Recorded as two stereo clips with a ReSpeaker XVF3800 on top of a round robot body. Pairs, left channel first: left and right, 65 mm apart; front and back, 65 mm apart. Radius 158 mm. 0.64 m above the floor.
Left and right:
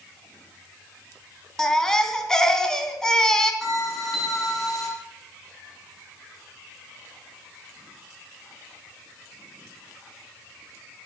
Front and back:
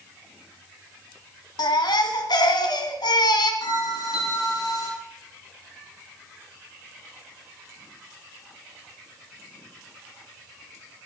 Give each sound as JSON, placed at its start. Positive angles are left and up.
{"t": 1.6, "sound": "a baby crying", "azimuth_deg": 10, "distance_m": 2.5}
{"t": 3.6, "sound": "a bell", "azimuth_deg": 0, "distance_m": 10.0}